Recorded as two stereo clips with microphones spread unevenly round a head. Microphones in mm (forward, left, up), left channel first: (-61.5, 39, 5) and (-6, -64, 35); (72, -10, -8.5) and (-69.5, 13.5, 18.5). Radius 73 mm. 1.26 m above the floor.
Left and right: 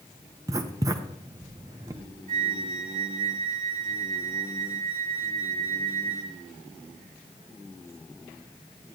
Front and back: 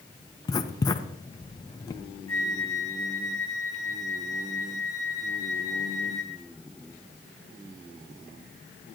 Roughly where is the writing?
Right.